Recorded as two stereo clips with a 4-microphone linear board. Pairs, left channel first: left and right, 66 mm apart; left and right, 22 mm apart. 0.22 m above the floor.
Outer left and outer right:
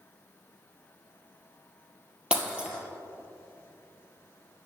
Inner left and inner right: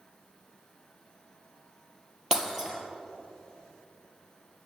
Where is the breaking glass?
15° right (ahead or behind), 2.5 m.